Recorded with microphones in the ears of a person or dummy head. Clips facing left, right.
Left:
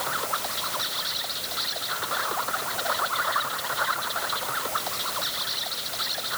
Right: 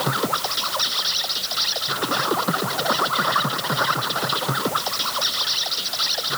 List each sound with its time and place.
0.0 s an insect: 60° right (ahead or behind)